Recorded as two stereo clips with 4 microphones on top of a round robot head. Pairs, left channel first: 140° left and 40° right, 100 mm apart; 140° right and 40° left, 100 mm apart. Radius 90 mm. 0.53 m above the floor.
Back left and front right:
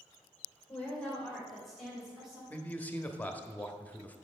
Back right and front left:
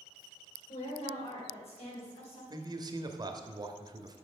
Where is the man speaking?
70° left, 0.9 m.